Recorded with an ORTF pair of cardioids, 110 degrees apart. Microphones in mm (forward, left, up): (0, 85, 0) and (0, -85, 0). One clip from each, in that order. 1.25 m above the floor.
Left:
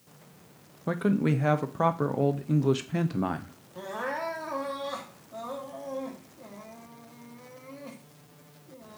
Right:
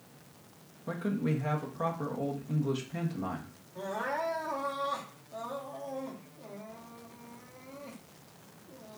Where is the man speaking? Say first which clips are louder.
Left 6 dB; 45° left, 0.8 m.